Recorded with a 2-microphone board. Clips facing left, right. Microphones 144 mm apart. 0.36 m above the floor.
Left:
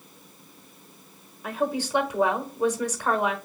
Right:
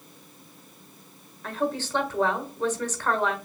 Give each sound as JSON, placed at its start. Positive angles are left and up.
{"t": 1.4, "sound": "a woman speaking", "side_deg": 10, "distance_m": 1.1}